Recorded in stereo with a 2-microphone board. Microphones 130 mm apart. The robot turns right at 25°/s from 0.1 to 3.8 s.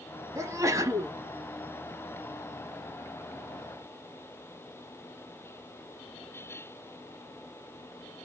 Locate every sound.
0.3 s a sneeze: 25° right (ahead or behind), 1.0 m